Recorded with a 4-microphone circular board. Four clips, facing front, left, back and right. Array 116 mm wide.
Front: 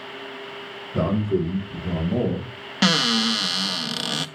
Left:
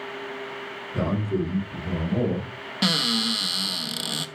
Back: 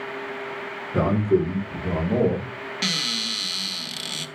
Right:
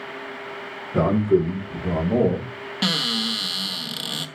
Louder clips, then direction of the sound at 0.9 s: Right 8 dB, back 2 dB; 130° right.